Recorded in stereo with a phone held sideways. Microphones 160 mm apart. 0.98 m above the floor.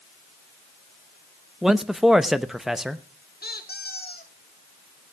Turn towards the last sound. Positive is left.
turn(degrees=70)  # may be behind; listen again after turning